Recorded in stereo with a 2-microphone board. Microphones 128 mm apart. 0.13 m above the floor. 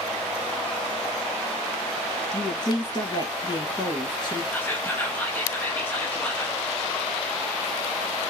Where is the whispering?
15° left (ahead or behind), 1.2 m.